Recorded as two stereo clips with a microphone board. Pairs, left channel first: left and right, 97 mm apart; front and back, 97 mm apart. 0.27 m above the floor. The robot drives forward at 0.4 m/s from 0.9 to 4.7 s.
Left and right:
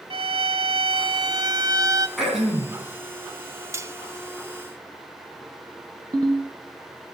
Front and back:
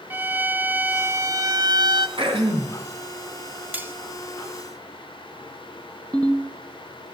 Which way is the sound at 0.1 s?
110° right.